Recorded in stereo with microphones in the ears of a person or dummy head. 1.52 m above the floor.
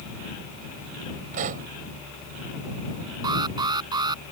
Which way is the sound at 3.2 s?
20° right (ahead or behind).